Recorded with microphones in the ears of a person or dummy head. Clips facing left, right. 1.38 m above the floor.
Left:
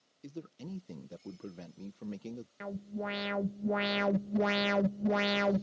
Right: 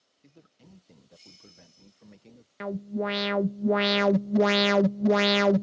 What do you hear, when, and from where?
0.2 s a man speaking: 55° left (ahead or behind)
2.6 s an alarm: 60° right (ahead or behind)